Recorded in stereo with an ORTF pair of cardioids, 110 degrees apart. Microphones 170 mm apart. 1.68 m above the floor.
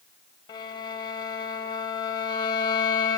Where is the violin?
25° left, 1.1 m.